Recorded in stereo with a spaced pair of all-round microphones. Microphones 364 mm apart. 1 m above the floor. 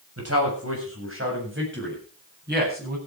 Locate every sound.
0.2 s a man speaking: 45° right (ahead or behind), 7.5 m; by 3.0 s 25° right (ahead or behind), 8.5 m